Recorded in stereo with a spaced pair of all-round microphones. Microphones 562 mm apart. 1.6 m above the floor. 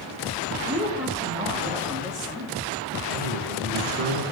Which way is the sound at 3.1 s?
65° right (ahead or behind).